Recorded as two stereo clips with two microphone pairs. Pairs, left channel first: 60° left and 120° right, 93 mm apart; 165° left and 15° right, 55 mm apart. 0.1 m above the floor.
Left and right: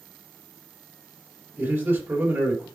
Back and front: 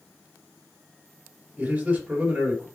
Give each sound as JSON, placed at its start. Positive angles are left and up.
{"t": 1.6, "sound": "a man speaking", "azimuth_deg": -75, "distance_m": 2.5}